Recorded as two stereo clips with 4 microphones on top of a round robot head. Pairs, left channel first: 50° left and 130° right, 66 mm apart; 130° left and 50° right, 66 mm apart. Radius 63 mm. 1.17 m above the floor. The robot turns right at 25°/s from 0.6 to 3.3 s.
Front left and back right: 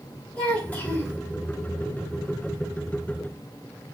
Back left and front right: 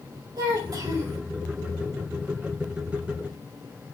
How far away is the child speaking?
About 4 m.